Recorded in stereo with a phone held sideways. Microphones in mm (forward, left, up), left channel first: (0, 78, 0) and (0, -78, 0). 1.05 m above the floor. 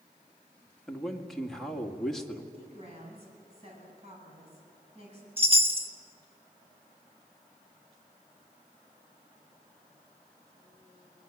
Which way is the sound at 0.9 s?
Centre (ahead or behind).